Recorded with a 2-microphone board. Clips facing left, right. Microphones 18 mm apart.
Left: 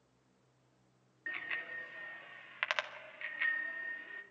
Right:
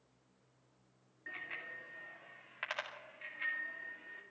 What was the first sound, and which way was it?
A bicycle bell, 35° left (ahead or behind).